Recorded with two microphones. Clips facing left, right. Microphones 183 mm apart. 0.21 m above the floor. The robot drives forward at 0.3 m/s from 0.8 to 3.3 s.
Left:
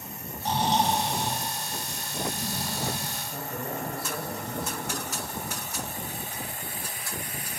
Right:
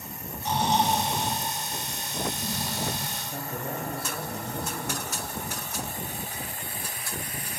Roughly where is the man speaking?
Centre.